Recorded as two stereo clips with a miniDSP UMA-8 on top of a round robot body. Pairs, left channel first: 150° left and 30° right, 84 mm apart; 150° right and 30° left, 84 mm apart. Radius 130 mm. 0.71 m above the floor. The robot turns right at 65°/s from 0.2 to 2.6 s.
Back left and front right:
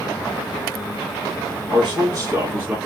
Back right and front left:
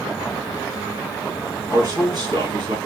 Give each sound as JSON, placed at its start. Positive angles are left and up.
{"t": 1.7, "sound": "a man speaking", "azimuth_deg": -25, "distance_m": 1.7}